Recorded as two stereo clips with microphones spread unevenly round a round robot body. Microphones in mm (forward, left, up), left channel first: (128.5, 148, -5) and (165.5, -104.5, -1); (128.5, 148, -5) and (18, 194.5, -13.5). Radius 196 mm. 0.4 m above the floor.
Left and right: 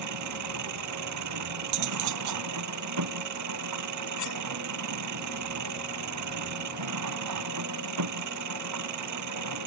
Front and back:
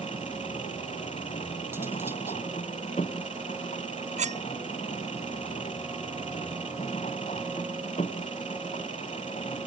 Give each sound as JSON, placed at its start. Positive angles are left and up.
{"t": 0.0, "sound": "an engine running", "azimuth_deg": -95}
{"t": 1.7, "sound": "cutlery clinking", "azimuth_deg": -120}
{"t": 4.2, "sound": "cutlery clinking", "azimuth_deg": 145}